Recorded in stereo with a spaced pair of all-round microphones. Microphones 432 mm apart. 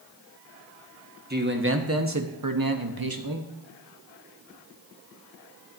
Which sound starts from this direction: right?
A man speaking, at 1.3 s.